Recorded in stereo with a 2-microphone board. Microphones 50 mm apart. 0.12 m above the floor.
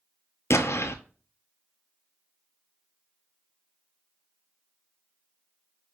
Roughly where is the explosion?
Left.